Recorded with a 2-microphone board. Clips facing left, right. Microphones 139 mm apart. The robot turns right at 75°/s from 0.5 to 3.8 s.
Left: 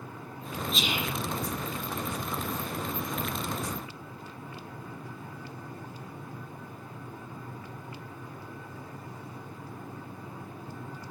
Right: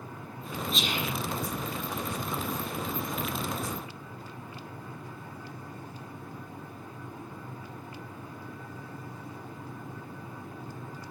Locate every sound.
0.7 s whispering: straight ahead, 0.6 m; by 1.1 s 30° left, 0.6 m